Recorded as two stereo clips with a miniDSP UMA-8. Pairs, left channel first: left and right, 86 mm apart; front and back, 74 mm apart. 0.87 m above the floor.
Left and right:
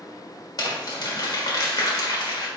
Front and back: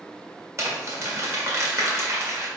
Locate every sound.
0.6 s crumpling: 130° left, 1.4 m